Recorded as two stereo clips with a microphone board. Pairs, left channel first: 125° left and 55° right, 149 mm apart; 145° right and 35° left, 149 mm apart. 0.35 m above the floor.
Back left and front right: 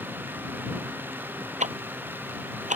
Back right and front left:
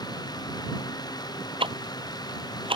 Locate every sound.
1.6 s ticking: 20° right